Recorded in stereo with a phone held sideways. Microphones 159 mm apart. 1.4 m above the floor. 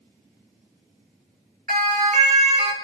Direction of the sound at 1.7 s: 60° right (ahead or behind).